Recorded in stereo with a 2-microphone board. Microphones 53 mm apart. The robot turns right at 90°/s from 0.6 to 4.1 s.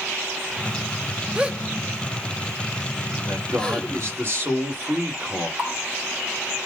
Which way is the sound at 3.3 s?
120° right.